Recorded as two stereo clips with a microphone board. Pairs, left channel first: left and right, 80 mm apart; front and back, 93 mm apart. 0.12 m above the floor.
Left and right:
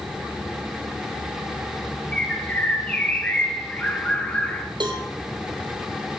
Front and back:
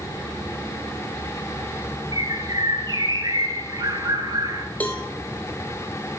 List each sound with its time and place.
2.1 s a bird: 160° left, 1.5 m
4.8 s a cowbell: 75° right, 1.5 m